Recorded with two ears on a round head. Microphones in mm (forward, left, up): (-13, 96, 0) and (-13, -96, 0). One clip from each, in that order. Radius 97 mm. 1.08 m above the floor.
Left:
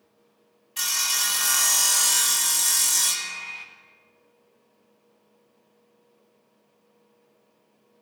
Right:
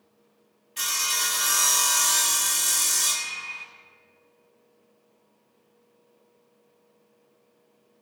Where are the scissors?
I don't hear scissors.